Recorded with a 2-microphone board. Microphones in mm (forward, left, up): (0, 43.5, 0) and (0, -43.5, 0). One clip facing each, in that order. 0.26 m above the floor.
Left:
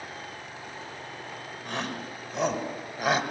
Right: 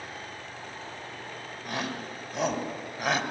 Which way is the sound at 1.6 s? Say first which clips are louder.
Even; 5° right (ahead or behind).